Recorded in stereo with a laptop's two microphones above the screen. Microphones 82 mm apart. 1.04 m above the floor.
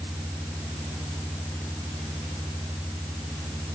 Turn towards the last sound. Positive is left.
No sound to turn to.